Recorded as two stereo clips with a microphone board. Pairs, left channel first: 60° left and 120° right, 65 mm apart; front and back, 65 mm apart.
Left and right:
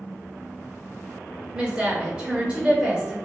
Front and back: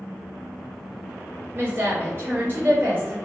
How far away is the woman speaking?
About 1.3 m.